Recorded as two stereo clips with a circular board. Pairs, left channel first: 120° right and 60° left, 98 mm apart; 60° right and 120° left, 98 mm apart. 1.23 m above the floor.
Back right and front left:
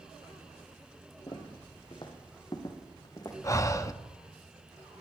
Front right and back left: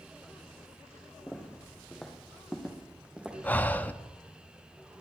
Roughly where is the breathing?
Behind right.